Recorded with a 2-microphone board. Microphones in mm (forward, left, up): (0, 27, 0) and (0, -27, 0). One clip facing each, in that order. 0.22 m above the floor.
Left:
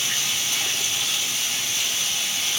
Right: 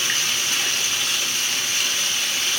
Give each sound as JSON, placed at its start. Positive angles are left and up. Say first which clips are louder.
{"t": 0.0, "sound": "running water", "louder": "right 3 dB", "side_deg": -65, "distance_m": 1.1}